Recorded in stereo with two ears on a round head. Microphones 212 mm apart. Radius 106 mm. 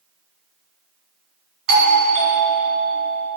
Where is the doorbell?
45° right (ahead or behind), 1.8 m.